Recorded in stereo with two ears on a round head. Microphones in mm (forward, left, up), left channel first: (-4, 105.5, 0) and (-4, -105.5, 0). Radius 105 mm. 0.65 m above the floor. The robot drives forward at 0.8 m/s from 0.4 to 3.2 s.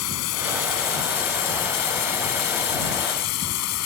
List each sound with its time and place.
0.0 s running water: 70° left (ahead or behind); by 3.9 s 75° left (ahead or behind)